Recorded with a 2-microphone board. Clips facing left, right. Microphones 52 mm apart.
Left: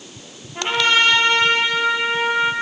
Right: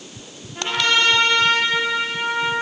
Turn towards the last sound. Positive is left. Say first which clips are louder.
# left 2 dB
turn(degrees=25)  # may be behind; listen again after turning